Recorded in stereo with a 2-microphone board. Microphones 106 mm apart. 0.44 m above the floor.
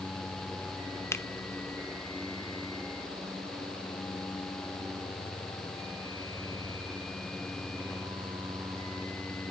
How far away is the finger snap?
About 0.7 m.